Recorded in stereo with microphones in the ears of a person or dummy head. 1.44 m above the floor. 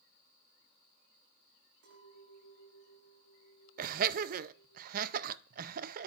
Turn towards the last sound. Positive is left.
turn(degrees=-50)  # may be behind; listen again after turning